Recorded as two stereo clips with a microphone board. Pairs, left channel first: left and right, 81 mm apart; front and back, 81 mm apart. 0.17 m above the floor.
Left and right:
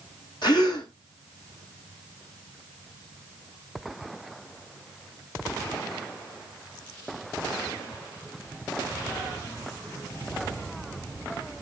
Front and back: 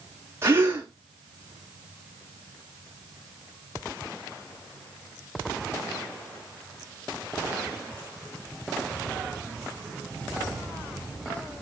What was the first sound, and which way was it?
A gasp, 120° left.